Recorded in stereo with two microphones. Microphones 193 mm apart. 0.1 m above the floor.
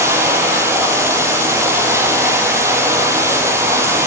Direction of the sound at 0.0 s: 15° right (ahead or behind).